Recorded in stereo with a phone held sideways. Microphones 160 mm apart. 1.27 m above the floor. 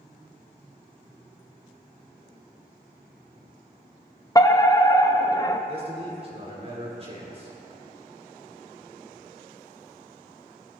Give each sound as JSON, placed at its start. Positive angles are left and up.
{"t": 4.3, "sound": "a fire alarm", "side_deg": 25, "distance_m": 0.9}
{"t": 5.7, "sound": "a man speaking", "side_deg": -40, "distance_m": 5.0}